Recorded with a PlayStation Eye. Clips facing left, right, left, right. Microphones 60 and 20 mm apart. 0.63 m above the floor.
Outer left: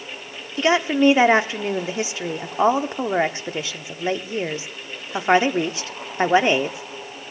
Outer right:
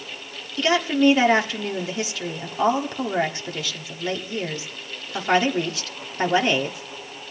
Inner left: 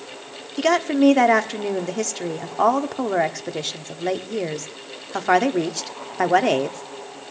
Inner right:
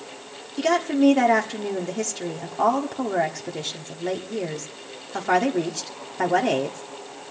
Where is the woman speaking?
25° left (ahead or behind), 1.1 m.